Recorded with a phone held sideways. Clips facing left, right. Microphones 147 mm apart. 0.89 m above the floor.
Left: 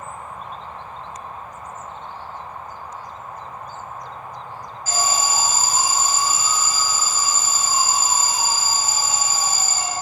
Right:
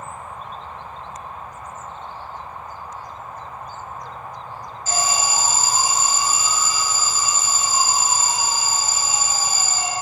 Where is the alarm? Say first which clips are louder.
Even; 30° right (ahead or behind), 1.9 m.